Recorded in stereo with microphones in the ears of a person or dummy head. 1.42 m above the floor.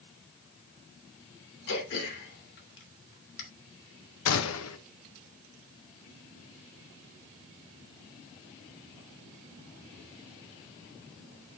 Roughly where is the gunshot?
Left.